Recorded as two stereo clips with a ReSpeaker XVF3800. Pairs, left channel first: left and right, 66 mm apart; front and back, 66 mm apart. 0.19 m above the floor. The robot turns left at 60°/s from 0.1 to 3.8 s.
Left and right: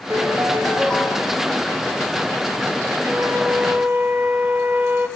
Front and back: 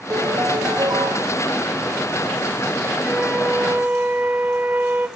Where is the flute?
90° right, 1.1 m; by 5.1 s 135° right, 1.1 m.